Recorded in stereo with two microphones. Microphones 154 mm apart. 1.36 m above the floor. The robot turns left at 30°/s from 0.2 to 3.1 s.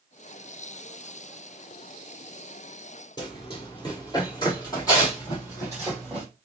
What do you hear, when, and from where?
3.2 s running footsteps: 30° left (ahead or behind), 1.5 m; by 6.2 s 20° left (ahead or behind), 2 m